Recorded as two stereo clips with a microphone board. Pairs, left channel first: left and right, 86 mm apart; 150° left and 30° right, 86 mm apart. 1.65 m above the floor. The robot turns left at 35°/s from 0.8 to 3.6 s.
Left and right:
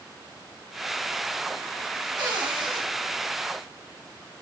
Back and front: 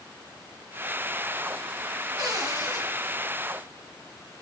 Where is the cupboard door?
60° right, 6 m; by 2.8 s 85° right, 6 m.